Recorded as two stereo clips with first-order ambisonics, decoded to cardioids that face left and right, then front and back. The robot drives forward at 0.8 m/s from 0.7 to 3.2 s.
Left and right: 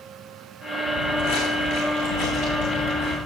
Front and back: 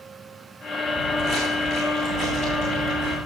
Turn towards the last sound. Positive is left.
turn(degrees=140)